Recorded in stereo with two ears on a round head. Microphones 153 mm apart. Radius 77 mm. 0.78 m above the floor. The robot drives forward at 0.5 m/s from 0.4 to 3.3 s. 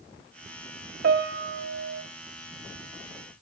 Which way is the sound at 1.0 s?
65° right (ahead or behind).